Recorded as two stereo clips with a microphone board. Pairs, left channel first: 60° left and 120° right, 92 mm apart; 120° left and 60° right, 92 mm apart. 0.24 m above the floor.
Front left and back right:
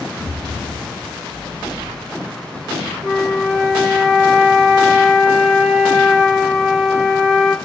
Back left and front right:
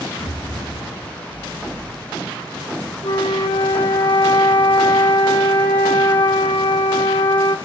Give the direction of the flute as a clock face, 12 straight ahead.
7 o'clock.